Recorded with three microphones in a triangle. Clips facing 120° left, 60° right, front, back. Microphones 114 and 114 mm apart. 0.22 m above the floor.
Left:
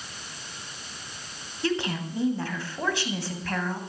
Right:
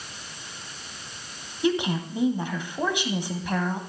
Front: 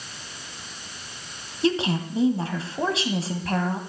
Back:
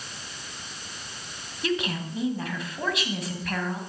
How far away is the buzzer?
No buzzer in this recording.